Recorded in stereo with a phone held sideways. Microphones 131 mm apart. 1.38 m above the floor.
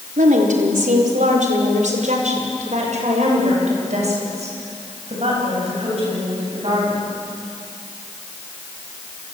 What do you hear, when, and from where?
0.2 s a woman speaking: 85° right, 4 m; by 7.0 s 50° right (ahead or behind), 11.5 m